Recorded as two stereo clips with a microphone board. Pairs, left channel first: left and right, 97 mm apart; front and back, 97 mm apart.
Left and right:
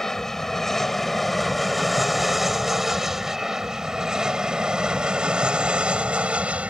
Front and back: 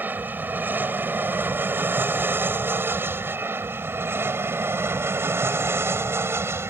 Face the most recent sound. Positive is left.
turn(degrees=-155)